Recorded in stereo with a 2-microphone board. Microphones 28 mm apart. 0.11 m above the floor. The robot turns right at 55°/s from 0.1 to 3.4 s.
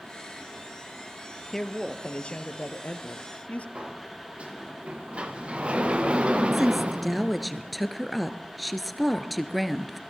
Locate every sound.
1.5 s a woman speaking: 10° left, 2 m; by 3.6 s 110° left, 2 m
3.8 s a sliding door: 45° right (ahead or behind), 3 m
6.5 s a woman speaking: centre (ahead or behind), 1.6 m